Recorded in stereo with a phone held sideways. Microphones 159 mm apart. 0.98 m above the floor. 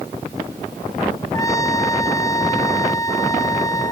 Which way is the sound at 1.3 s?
20° left (ahead or behind).